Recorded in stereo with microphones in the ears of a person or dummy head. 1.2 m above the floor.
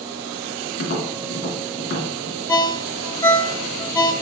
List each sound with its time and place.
0.8 s tapping: 50° left (ahead or behind), 2.5 m
2.5 s a ringtone: 10° left (ahead or behind), 0.7 m